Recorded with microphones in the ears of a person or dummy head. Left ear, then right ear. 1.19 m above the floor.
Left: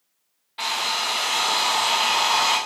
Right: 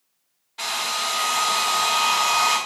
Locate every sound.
0.6 s a hair dryer: 20° left (ahead or behind), 1.6 m